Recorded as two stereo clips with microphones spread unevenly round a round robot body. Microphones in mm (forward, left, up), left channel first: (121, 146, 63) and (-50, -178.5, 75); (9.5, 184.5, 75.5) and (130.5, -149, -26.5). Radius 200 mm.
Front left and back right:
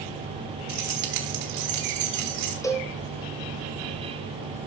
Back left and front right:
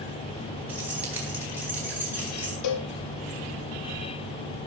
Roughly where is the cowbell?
Behind left.